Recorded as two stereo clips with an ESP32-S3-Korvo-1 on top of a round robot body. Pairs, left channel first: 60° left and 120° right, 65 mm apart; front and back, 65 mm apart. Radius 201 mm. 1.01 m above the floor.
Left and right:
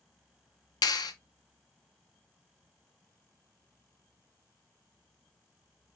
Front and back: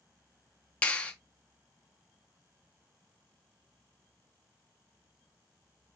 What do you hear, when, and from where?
0.8 s a clap: 70° left, 0.5 m